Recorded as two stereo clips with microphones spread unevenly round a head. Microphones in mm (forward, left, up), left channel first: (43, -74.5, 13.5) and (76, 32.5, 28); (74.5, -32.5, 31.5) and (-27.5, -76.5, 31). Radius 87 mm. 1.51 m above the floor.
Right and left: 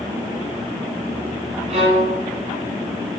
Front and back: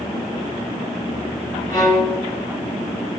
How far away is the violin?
About 2.5 m.